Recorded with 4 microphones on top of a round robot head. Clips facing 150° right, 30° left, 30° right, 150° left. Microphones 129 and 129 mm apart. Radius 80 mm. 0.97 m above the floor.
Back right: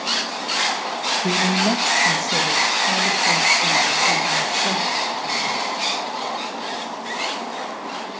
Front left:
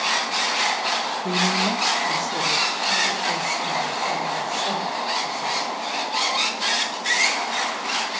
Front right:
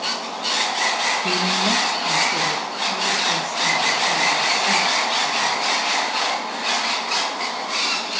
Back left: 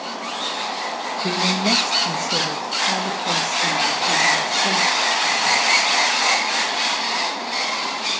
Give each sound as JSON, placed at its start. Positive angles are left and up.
{"t": 1.2, "sound": "a man speaking", "azimuth_deg": -155, "distance_m": 1.4}